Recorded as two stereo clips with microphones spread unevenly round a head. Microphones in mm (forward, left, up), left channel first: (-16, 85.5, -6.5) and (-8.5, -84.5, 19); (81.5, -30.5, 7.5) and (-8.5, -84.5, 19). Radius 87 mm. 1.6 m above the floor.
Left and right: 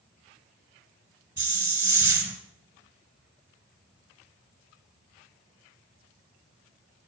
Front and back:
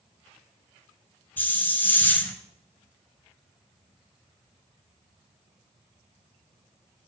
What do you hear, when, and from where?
1.4 s a hiss: 40° right, 1.5 m